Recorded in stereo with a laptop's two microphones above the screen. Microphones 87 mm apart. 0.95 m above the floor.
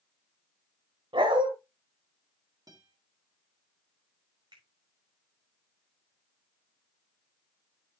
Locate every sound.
1.1 s a dog barking: 70° right (ahead or behind), 2 m
2.7 s a guitar: 45° right (ahead or behind), 1.5 m
4.5 s a finger snap: 60° right (ahead or behind), 5.5 m